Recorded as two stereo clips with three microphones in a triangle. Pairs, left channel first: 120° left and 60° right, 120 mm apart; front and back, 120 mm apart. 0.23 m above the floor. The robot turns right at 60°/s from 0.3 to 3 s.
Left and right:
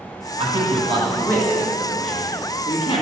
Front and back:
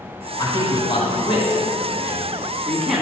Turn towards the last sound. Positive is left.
turn(degrees=100)